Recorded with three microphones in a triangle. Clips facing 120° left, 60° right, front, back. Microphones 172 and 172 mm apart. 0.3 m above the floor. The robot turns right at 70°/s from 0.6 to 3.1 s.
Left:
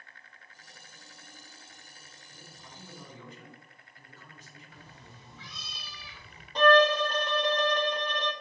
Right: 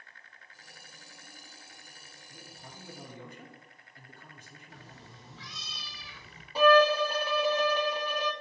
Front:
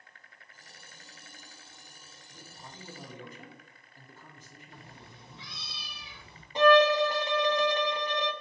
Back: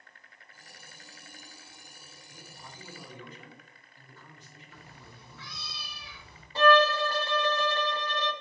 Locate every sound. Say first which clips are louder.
2.3 s a man speaking: right 2 dB, front 1 dB; 90° right, 3 m; by 5.5 s 35° right, 3 m
4.7 s a cat meowing: right 4 dB, front 1 dB; 60° right, 3.5 m
6.5 s a violin: even, front 2 dB; 5° left, 0.8 m